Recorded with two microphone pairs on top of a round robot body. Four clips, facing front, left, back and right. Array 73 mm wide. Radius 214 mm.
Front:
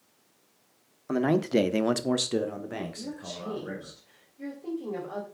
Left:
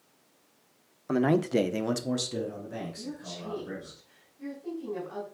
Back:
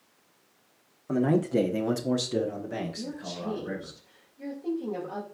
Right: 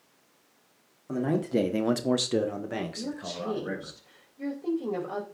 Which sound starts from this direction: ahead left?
A man speaking, at 1.1 s.